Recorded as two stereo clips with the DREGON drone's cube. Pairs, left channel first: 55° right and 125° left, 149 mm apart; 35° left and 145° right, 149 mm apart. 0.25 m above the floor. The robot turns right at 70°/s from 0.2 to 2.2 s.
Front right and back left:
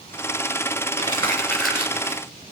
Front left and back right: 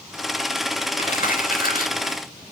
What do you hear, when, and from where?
1.0 s crumpling: 10° right, 3 m; by 2.2 s 75° left, 3 m